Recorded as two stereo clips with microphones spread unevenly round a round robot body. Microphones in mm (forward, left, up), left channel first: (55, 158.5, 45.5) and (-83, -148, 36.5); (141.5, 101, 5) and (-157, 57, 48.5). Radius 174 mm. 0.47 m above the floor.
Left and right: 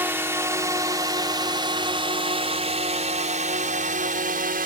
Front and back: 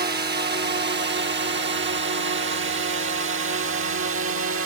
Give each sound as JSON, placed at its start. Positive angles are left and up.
{"t": 0.0, "sound": "a drone", "azimuth_deg": 175}